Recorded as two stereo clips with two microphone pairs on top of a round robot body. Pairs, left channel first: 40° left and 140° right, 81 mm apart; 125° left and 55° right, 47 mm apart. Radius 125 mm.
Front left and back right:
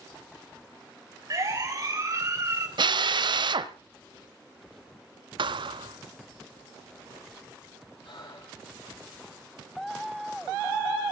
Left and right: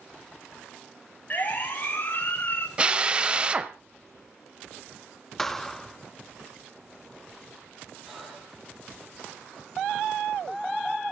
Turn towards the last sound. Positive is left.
turn(degrees=30)